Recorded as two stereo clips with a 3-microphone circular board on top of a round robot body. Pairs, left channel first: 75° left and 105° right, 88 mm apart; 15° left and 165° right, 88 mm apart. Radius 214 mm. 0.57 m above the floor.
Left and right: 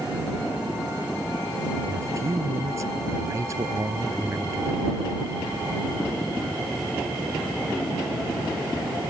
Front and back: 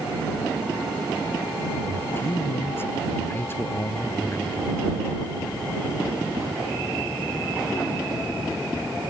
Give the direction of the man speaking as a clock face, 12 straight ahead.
2 o'clock.